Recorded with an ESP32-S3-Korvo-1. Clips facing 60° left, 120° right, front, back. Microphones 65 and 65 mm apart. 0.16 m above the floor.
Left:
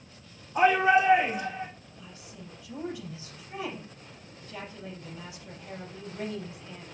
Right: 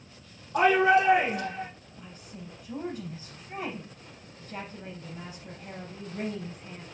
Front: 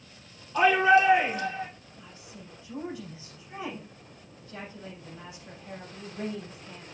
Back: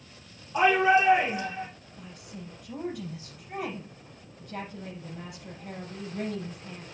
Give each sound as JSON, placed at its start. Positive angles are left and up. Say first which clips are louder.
{"t": 0.5, "sound": "a shout", "louder": "even, front 1 dB", "azimuth_deg": -105, "distance_m": 3.5}
{"t": 2.0, "sound": "a woman speaking", "louder": "right 4 dB, back 7 dB", "azimuth_deg": -160, "distance_m": 4.0}